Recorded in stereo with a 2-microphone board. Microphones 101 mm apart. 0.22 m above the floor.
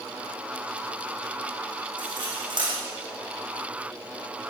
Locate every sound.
2.0 s cutlery clinking: 50° right (ahead or behind), 7.5 m